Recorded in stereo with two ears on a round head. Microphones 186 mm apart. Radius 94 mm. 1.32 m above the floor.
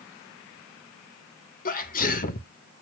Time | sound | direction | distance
1.6 | a sneeze | 45° left (ahead or behind) | 1.2 m